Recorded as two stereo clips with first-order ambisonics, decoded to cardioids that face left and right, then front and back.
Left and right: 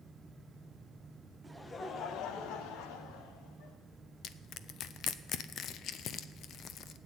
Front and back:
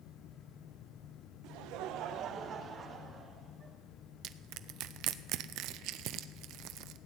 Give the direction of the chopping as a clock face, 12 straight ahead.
I don't hear chopping.